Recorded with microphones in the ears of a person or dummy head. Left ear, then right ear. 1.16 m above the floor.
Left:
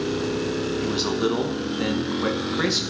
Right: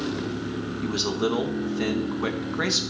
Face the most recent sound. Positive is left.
turn(degrees=-5)  # may be behind; listen again after turning